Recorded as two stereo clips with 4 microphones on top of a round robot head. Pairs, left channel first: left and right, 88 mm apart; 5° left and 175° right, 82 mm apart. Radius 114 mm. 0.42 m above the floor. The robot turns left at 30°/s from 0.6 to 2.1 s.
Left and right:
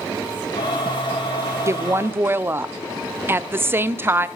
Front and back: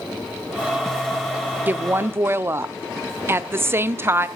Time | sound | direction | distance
1.7 | a woman speaking | 125° right | 0.8 m